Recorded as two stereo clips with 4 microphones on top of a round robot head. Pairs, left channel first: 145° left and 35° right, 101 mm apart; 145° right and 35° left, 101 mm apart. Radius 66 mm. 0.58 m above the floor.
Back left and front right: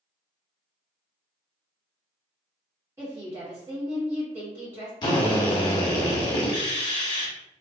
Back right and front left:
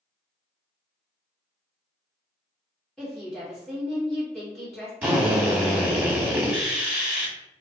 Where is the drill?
105° left, 0.8 m.